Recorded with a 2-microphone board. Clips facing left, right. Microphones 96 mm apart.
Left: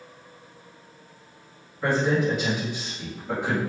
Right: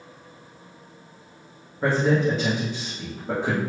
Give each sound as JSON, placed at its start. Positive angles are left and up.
{"t": 1.8, "sound": "a man speaking", "side_deg": -35, "distance_m": 1.4}